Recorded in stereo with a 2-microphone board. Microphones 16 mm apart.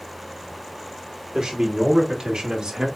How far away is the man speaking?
About 3 m.